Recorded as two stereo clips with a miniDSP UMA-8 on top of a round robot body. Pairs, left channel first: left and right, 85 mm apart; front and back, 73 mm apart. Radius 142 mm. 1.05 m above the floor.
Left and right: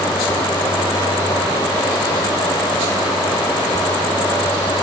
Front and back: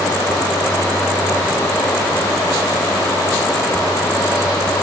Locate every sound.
Only background noise.